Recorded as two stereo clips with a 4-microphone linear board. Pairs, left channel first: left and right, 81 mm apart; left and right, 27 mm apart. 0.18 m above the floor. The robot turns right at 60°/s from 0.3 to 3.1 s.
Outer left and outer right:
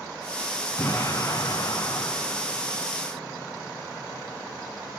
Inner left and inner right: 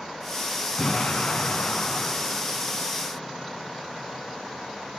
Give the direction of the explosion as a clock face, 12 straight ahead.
11 o'clock.